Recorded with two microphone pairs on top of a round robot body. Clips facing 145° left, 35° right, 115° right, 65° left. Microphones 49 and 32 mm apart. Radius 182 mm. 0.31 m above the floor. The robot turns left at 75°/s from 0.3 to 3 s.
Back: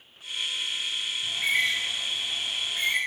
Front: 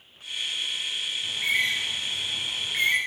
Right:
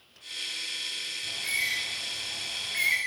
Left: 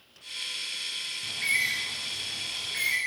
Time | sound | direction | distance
1.2 | a bird | 70° left | 3 m